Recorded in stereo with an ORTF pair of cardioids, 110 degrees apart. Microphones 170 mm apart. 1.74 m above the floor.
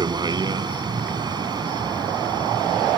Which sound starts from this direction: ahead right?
A vehicle, at 0.0 s.